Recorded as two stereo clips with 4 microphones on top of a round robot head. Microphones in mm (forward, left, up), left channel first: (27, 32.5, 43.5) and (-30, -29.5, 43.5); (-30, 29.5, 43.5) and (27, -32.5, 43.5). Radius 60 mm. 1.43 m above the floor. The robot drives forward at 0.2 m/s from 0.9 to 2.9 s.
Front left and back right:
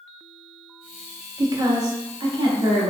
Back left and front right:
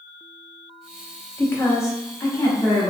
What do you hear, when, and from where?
1.4 s a woman speaking: 170° right, 0.6 m; by 2.9 s 175° right, 0.9 m